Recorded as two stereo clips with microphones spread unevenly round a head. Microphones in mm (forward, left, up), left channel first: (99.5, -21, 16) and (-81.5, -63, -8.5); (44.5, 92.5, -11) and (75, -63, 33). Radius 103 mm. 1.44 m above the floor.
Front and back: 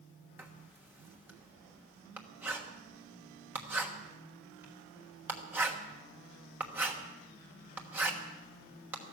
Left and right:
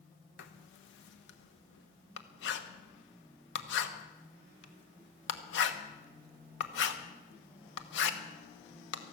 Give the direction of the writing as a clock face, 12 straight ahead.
8 o'clock.